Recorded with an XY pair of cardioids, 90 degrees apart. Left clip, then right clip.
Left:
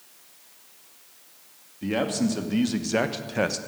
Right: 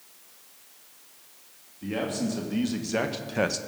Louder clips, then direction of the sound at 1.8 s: Left 4 dB; 50° left.